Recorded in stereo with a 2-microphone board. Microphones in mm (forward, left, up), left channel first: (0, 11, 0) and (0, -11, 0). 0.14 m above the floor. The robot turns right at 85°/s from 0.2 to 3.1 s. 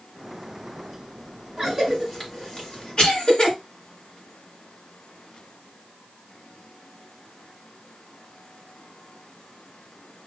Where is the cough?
30° right (ahead or behind), 2.5 m; by 3.5 s 45° left (ahead or behind), 2.5 m.